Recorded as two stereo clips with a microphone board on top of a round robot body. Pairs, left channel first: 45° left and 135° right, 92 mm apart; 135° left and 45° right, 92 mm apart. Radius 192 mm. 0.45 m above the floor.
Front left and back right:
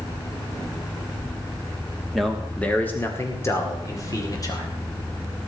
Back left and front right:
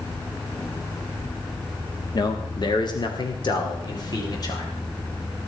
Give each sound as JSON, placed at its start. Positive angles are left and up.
{"t": 2.1, "sound": "a man speaking", "azimuth_deg": 135, "distance_m": 1.6}